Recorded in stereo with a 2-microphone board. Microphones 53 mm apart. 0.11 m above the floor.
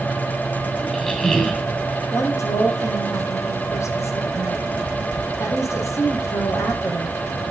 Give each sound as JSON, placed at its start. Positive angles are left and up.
{"t": 0.8, "sound": "a squeak", "side_deg": 10, "distance_m": 3.5}
{"t": 2.1, "sound": "a woman speaking", "side_deg": 65, "distance_m": 4.0}